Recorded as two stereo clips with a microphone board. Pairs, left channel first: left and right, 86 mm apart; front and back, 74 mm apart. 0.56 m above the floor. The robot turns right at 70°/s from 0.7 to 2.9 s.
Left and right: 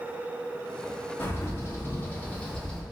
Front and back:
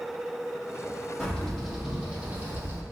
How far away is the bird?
About 0.6 m.